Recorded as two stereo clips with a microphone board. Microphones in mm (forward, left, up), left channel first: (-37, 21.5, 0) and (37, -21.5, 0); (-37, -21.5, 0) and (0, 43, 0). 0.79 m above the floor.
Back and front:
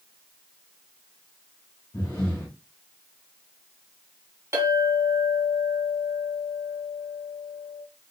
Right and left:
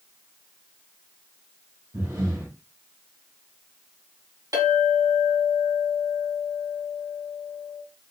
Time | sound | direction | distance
1.9 | breathing | 90° left | 1.3 m
4.5 | a clink | 25° left | 1.8 m